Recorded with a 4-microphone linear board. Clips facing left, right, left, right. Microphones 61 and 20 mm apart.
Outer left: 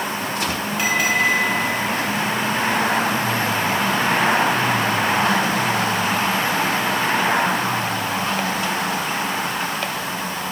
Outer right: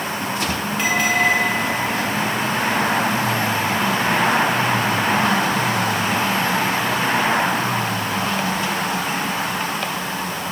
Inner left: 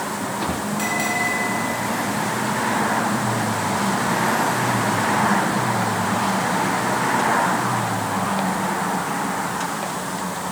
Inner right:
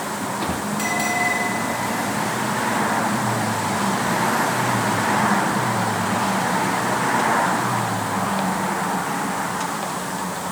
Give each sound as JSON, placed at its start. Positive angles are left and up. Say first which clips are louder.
{"t": 0.8, "sound": "a bell", "louder": "outer right 1 dB, inner right 1 dB", "side_deg": 10, "distance_m": 4.0}